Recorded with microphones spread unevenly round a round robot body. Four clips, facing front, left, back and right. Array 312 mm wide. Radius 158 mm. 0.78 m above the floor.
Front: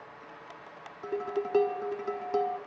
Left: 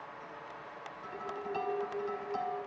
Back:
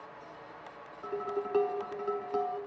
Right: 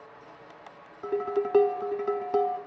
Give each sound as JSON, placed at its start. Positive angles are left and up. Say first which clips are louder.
{"t": 1.0, "sound": "dishes clattering", "louder": "right 13 dB, front 2 dB", "azimuth_deg": -70, "distance_m": 1.0}